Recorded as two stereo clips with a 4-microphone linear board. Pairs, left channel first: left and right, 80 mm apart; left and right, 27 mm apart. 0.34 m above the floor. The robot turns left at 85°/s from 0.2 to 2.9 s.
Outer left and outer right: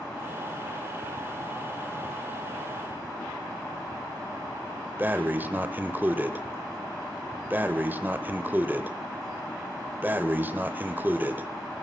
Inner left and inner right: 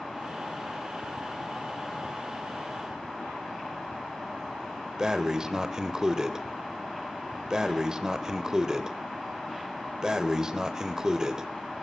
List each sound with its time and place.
5.0 s breathing: 25° right (ahead or behind), 0.7 m